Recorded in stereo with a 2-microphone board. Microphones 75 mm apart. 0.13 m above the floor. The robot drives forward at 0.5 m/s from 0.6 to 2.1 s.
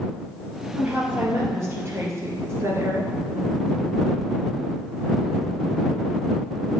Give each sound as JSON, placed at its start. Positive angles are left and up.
{"t": 0.8, "sound": "a woman speaking", "side_deg": -30, "distance_m": 2.5}